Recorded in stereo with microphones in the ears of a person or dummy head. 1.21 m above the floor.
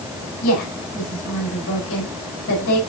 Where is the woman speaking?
70° left (ahead or behind), 5 m.